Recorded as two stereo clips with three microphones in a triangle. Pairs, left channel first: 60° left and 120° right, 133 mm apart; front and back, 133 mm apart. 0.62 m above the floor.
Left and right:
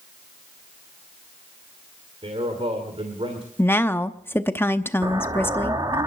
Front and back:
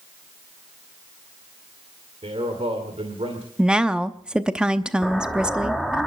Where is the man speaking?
150° right, 2.5 m.